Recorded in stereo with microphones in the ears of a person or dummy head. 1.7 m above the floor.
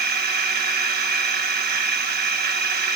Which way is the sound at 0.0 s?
45° right (ahead or behind).